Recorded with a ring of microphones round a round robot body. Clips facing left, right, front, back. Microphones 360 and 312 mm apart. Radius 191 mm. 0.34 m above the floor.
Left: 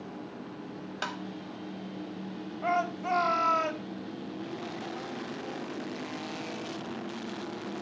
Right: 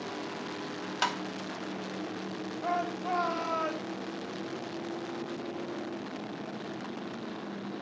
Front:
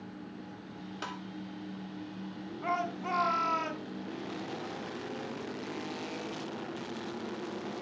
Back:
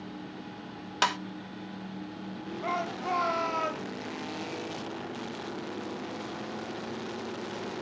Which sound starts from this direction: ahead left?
A shout, at 2.6 s.